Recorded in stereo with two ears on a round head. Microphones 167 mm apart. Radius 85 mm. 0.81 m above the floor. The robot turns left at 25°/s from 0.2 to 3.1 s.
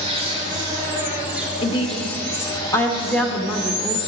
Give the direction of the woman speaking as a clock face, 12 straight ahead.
11 o'clock.